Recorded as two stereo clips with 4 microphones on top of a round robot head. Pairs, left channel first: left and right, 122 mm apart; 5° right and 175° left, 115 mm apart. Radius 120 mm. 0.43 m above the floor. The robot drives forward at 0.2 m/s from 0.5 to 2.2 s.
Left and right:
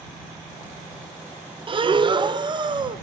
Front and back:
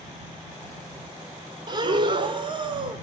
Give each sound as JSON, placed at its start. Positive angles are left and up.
{"t": 1.7, "sound": "breathing", "azimuth_deg": -135, "distance_m": 0.8}